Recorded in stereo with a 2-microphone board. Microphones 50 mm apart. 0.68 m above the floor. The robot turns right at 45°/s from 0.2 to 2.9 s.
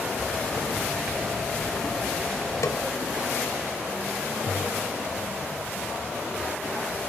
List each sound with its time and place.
2.6 s a snare drum: 80° left, 1.8 m; by 2.8 s 75° left (ahead or behind), 1.8 m